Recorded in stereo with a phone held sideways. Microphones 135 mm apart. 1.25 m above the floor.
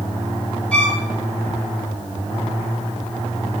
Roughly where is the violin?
Centre.